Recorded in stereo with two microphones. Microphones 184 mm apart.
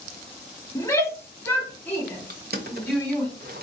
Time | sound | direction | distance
0.8 | a shout | 15° left (ahead or behind) | 1.1 m
2.3 | crushing | 60° right (ahead or behind) | 0.9 m